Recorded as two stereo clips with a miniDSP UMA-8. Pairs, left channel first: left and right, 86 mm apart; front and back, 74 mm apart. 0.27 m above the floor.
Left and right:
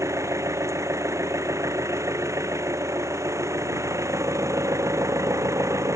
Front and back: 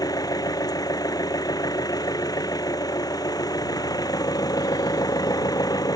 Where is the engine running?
35° right.